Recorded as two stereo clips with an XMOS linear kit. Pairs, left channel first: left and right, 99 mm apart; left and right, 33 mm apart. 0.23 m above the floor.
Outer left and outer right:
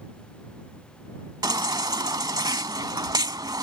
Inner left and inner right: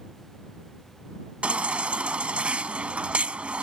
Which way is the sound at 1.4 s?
45° right (ahead or behind).